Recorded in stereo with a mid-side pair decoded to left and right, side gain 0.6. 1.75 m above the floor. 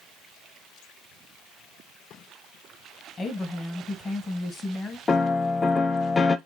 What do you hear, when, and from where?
3.2 s a woman speaking: 30° left, 1.5 m
5.1 s a piano: 25° left, 0.6 m